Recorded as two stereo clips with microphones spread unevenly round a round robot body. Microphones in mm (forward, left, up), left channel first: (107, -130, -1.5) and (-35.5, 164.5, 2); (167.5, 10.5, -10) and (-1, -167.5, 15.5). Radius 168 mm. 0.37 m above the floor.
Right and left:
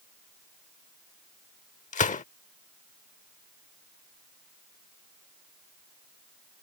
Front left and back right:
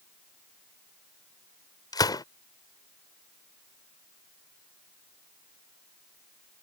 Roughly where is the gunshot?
Ahead.